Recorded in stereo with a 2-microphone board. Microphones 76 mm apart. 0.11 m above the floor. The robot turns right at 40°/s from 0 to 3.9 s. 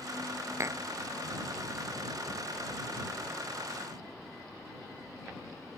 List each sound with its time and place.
0.6 s tapping: 40° right (ahead or behind)